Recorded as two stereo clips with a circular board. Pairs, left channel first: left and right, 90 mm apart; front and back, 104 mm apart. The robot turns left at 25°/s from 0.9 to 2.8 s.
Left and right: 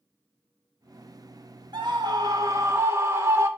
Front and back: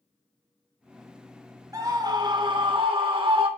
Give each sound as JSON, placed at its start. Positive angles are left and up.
{"t": 1.7, "sound": "a scream", "azimuth_deg": -120, "distance_m": 2.5}